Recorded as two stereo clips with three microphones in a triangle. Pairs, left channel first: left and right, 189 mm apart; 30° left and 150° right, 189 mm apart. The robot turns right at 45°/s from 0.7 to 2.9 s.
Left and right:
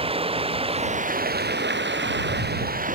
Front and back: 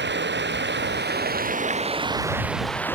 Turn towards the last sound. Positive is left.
turn(degrees=-50)